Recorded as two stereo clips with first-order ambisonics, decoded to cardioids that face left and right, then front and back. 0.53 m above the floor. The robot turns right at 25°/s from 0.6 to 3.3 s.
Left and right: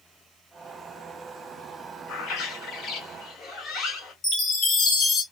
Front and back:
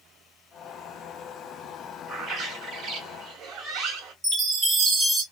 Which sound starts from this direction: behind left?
A chime, at 4.2 s.